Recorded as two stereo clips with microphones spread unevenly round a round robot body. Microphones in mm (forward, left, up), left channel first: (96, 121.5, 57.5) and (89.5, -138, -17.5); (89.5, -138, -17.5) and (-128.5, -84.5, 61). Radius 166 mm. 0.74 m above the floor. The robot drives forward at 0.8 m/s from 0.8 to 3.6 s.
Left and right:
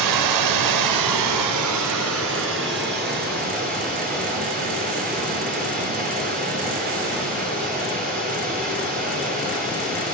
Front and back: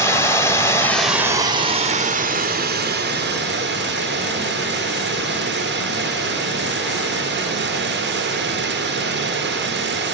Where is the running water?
100° right, 1.0 m; by 10.2 s 160° right, 2.5 m.